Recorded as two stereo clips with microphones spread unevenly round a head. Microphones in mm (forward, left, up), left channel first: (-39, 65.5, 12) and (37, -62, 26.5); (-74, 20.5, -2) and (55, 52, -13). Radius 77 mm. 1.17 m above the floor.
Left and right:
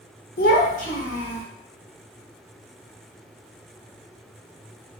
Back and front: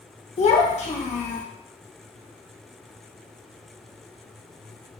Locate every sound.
0.4 s a child speaking: 155° left, 0.9 m; by 1.4 s 160° left, 1.8 m